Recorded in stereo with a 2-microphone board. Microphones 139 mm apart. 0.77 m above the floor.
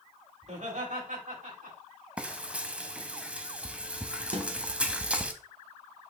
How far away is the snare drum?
About 1.0 m.